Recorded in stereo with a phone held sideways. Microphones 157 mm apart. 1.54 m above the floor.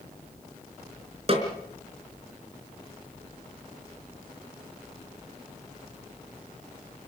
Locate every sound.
1.3 s a snare drum: 40° right (ahead or behind), 4.5 m